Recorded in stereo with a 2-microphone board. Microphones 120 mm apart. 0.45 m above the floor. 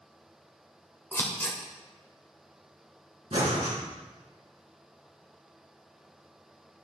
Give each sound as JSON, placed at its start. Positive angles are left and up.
{"t": 1.1, "sound": "scissors", "side_deg": 20, "distance_m": 1.3}
{"t": 3.3, "sound": "breathing", "side_deg": -75, "distance_m": 3.5}